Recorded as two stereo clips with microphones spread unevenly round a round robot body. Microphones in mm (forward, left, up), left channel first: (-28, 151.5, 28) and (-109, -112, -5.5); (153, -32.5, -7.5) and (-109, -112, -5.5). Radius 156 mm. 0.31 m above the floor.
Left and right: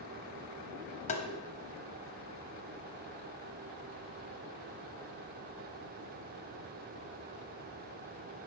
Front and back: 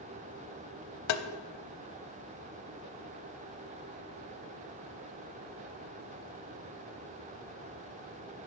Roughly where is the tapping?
Ahead.